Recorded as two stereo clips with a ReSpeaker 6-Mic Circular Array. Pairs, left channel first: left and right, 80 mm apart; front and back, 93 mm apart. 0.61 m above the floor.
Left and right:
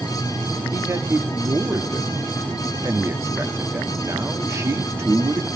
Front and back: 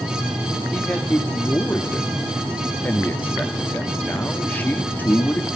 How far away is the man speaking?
About 0.9 m.